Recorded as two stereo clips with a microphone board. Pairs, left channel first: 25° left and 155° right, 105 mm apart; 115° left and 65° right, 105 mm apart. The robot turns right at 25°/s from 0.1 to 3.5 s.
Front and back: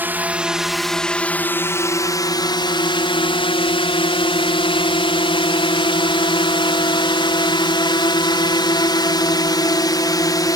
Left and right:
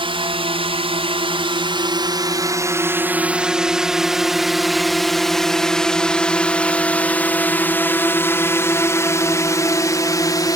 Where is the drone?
85° right; by 10.6 s 70° left.